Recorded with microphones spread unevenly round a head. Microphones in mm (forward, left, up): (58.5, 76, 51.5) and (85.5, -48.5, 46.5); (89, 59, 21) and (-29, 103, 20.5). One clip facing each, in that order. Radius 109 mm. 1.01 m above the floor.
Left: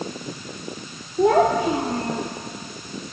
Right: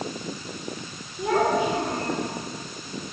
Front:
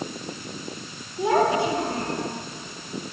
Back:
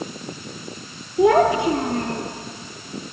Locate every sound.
1.2 s a child speaking: 160° left, 2 m; by 2.2 s 175° left, 2 m